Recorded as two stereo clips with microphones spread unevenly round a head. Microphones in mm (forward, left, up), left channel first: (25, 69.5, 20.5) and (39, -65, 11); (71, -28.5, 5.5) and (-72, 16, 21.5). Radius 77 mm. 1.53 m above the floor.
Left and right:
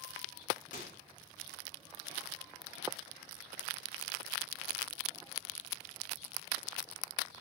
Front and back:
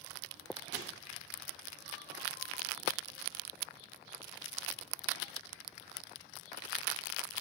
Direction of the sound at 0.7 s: 145° left.